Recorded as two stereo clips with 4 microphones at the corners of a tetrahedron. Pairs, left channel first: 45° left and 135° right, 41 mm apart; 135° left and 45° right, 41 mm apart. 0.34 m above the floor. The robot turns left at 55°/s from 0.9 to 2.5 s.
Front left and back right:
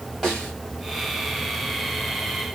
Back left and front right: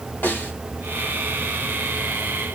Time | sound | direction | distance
0.2 | a snare drum | 130° left | 2.5 m